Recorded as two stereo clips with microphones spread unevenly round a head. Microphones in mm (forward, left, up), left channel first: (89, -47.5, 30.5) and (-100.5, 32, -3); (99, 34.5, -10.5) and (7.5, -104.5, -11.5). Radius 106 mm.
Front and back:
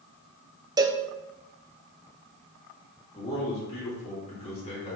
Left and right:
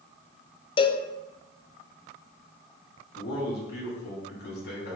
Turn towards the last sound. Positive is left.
turn(degrees=35)